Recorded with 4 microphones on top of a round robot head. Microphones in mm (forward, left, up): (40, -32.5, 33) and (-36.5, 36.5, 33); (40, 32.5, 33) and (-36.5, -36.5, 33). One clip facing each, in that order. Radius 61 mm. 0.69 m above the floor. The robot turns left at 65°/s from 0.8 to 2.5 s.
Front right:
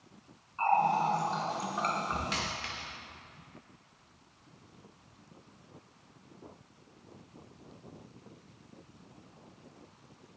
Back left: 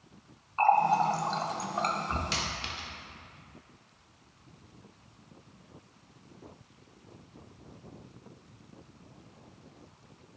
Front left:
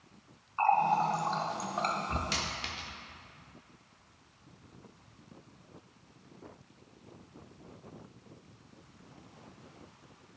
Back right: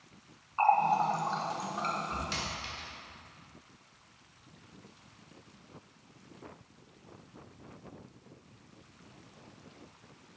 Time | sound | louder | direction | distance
0.6 | a running tap | back left 3 dB, back right 1 dB | 150° left | 1.0 m
2.3 | a dropped coin | back left 1 dB, front left 1 dB | 85° left | 1.0 m